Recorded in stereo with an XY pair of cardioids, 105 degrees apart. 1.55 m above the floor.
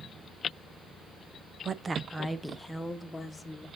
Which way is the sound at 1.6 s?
45° right.